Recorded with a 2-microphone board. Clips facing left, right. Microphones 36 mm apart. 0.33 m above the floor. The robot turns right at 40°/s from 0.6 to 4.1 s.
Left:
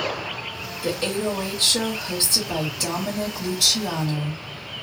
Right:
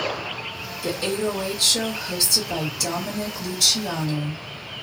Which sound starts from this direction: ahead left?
A woman speaking, at 0.8 s.